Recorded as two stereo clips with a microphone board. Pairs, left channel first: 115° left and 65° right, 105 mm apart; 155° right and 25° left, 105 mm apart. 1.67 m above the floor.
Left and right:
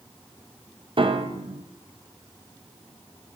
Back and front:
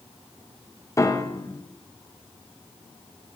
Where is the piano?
100° right, 0.6 m.